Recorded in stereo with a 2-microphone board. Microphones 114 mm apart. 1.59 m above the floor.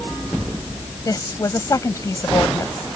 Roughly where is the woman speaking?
Left.